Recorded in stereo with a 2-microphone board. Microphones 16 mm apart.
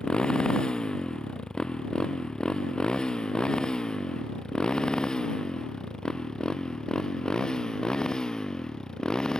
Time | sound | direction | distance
0.0 | a motorcycle | 55° left (ahead or behind) | ?